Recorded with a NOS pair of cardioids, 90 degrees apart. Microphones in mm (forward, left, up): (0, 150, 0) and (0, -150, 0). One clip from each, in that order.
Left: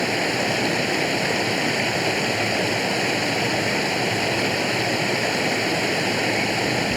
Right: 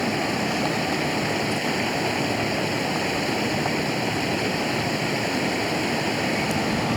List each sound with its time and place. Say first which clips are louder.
0.0 s running water: left 3 dB; 60° left